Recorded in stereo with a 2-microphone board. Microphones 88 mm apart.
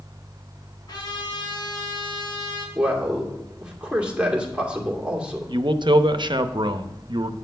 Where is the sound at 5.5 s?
65° right (ahead or behind), 0.6 m.